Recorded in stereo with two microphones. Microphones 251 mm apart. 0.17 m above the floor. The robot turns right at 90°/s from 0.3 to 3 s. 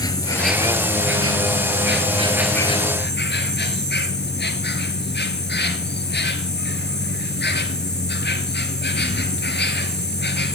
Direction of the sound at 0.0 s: 165° left.